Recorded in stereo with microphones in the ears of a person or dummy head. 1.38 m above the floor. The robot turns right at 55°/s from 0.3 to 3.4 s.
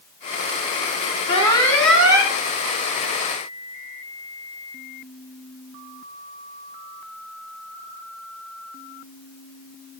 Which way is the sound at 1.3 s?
150° left.